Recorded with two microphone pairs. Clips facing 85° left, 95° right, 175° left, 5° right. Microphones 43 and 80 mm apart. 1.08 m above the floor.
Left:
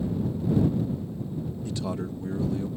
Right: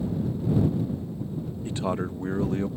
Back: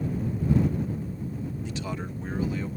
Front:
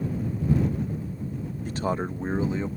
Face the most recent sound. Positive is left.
turn(degrees=-70)